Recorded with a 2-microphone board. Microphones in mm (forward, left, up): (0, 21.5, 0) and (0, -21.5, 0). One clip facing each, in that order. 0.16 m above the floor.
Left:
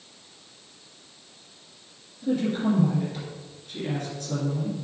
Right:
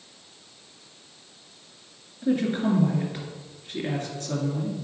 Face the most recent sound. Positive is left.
turn(degrees=-35)  # may be behind; listen again after turning